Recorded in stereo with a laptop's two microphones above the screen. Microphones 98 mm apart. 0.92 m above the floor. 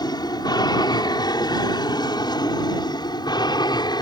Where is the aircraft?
45° left (ahead or behind); by 4.0 s 50° left (ahead or behind).